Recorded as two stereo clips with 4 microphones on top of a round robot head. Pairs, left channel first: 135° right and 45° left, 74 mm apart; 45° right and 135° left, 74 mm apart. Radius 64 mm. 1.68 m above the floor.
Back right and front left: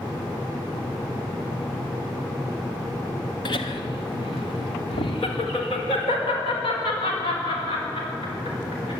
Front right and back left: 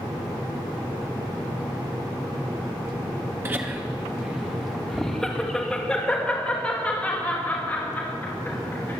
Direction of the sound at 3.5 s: 165° right.